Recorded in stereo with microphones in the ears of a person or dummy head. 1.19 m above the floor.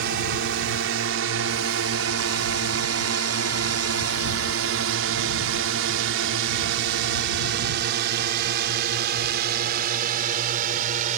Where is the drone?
60° right (ahead or behind); by 11.2 s 40° right (ahead or behind).